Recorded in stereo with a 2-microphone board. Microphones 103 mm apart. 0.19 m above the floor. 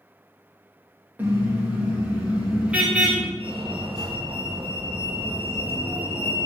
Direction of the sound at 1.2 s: 20° right (ahead or behind).